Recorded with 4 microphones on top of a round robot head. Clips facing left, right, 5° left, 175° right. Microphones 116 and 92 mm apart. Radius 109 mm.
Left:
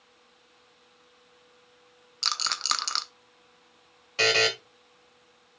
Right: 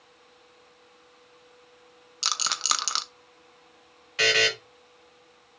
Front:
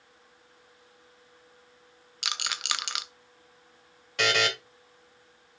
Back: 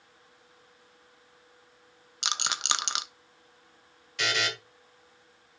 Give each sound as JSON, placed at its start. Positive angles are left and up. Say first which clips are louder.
{"t": 2.2, "sound": "a rattle", "louder": "right 1 dB, back 3 dB", "azimuth_deg": -160, "distance_m": 0.9}
{"t": 4.2, "sound": "a buzzer", "louder": "left 1 dB, front 4 dB", "azimuth_deg": 35, "distance_m": 2.0}